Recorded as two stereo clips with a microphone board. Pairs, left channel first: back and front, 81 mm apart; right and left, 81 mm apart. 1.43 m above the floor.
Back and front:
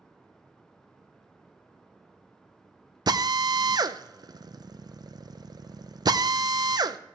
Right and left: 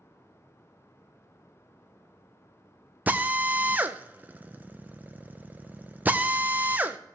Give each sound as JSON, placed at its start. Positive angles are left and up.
{"t": 3.1, "sound": "a drill", "azimuth_deg": 25, "distance_m": 0.6}